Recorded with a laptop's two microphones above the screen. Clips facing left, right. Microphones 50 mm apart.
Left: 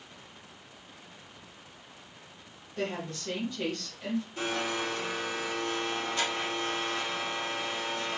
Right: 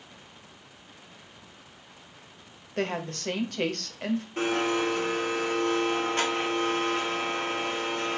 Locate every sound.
2.8 s a woman speaking: 60° right (ahead or behind), 0.8 m
4.4 s a blender: 45° right (ahead or behind), 1.3 m